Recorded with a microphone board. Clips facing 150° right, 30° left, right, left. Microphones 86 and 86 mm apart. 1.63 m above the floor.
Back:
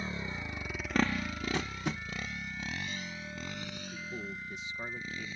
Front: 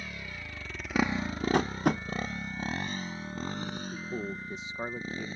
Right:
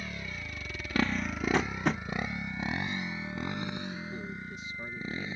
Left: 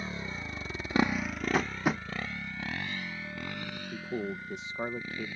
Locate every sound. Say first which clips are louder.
0.0 s a motorcycle: back 4 dB, left 2 dB; 150° left; by 5.4 s 20° right
1.5 s tapping: front 8 dB, left 1 dB; 10° left
3.9 s a man speaking: front 5 dB, left 5 dB; 85° left